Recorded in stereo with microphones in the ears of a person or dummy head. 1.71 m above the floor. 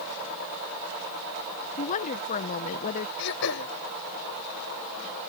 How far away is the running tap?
I don't hear a running tap.